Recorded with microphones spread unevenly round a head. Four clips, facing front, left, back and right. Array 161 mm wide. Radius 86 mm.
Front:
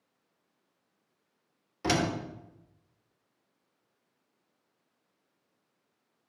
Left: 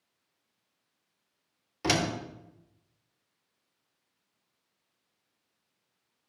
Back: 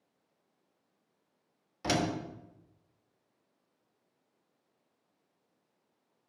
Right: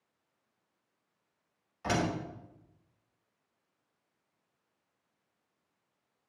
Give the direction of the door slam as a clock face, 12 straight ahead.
9 o'clock.